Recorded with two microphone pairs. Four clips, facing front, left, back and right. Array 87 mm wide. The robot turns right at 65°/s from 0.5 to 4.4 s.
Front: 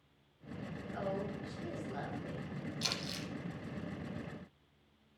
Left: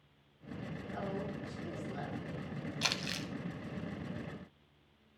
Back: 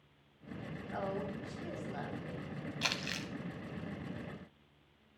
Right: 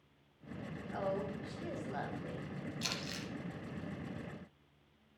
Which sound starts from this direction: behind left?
Crumpling, at 2.8 s.